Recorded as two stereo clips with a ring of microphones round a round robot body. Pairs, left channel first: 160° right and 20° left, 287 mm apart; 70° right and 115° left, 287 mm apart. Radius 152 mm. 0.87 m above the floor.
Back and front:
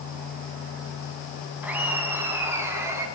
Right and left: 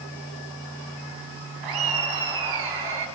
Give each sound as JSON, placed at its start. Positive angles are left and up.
{"t": 1.6, "sound": "laughter", "azimuth_deg": 105, "distance_m": 6.0}